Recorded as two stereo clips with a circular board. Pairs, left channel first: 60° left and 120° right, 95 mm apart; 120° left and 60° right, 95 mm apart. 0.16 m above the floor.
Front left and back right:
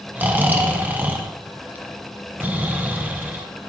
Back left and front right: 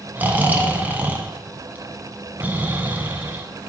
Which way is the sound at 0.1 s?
90° right.